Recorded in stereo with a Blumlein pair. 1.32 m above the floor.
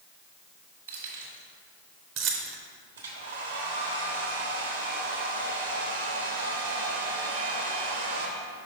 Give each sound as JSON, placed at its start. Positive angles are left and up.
{"t": 0.9, "sound": "keys jangling", "azimuth_deg": -65, "distance_m": 1.6}
{"t": 3.0, "sound": "a hair dryer", "azimuth_deg": -65, "distance_m": 1.2}